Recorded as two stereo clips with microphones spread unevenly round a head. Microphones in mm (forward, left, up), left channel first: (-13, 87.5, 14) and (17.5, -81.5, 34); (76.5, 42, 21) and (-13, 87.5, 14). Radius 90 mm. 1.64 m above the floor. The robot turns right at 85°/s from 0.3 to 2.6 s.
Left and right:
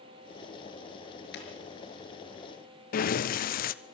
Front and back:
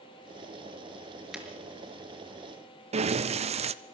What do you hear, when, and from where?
1.3 s breaking glass: 65° left, 5.5 m; by 1.5 s 80° left, 5.5 m
2.9 s breathing: 140° left, 0.8 m